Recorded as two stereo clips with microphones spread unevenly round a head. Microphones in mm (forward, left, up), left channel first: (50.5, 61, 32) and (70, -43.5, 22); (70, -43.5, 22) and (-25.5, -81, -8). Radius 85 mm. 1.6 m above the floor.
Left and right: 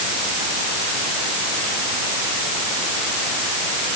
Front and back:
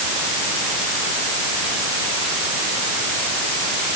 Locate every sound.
Only background noise.